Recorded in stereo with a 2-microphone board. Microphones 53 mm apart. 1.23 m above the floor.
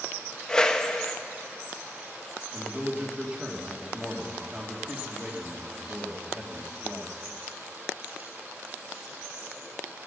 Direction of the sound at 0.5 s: 15° left (ahead or behind).